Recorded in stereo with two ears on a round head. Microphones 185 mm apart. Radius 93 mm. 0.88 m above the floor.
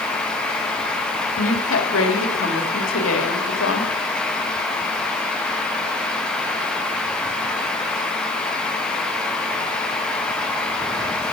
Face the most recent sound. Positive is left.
turn(degrees=70)  # may be behind; listen again after turning